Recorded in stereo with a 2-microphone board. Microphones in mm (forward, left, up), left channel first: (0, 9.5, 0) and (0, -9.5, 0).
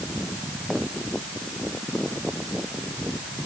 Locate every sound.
Only background noise.